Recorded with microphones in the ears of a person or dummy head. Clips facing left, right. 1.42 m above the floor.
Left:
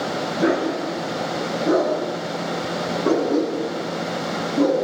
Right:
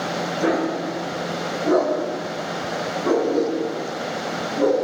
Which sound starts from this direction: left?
A dog barking, at 0.4 s.